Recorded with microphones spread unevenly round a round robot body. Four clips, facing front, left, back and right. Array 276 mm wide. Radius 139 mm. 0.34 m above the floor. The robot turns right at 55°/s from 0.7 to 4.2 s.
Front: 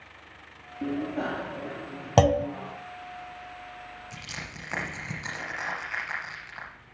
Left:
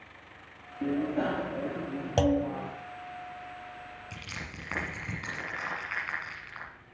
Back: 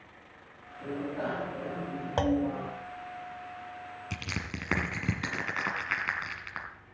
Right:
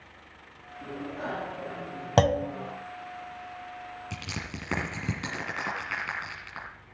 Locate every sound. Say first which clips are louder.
0.8 s a bicycle bell: left 7 dB, front 4 dB; 45° left, 5.5 m; by 2.7 s 145° left, 5.5 m
2.2 s a clunk: right 2 dB, front 6 dB; 35° right, 0.7 m; by 2.5 s 15° right, 0.7 m
4.1 s crushing: right 5 dB, back 3 dB; 155° right, 4.5 m; by 6.7 s 150° right, 4.5 m